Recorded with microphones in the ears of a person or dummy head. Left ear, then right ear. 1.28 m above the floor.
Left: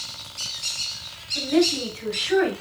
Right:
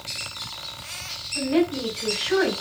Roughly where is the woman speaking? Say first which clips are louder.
Left 2 dB; centre.